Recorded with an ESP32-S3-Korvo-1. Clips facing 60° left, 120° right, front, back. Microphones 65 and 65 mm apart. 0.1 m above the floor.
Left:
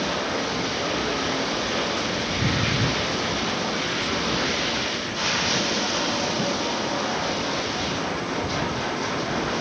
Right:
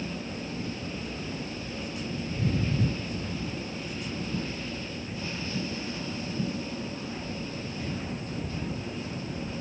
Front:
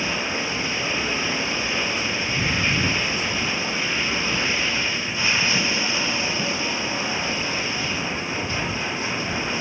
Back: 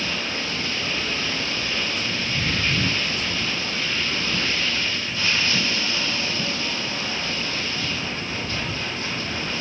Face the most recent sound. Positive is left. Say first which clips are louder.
# left 10 dB, front 2 dB
turn(degrees=75)